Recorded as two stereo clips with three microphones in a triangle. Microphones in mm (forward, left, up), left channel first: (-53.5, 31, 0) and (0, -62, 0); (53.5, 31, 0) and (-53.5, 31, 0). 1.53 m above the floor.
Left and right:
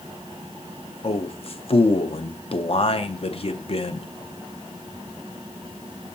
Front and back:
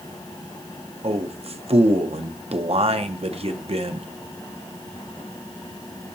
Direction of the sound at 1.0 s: 150° left.